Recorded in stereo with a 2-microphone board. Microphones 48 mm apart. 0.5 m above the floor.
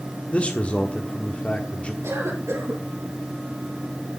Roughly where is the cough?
Right.